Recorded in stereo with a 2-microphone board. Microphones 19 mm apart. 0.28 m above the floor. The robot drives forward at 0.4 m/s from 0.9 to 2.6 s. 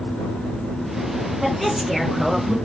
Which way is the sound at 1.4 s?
10° right (ahead or behind).